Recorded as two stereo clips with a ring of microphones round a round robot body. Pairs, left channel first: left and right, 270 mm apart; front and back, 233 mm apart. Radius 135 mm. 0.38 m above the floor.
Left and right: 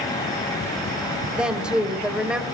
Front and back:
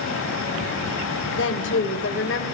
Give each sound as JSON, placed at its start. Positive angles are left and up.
{"t": 1.3, "sound": "a woman speaking", "azimuth_deg": -5, "distance_m": 1.5}